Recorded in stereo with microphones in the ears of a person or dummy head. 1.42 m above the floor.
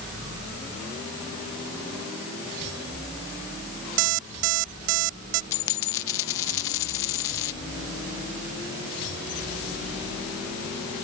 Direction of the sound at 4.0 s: 75° right (ahead or behind).